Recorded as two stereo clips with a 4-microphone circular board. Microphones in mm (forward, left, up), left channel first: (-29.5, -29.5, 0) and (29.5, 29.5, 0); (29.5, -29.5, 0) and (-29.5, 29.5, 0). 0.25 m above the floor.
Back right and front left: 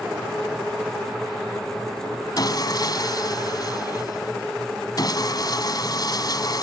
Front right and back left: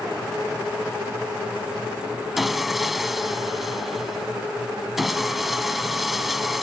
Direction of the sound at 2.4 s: 135° right.